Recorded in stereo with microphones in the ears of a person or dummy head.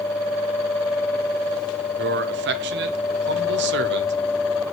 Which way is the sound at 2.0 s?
55° right (ahead or behind).